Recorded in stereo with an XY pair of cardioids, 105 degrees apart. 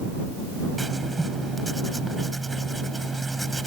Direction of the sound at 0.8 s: 10° right.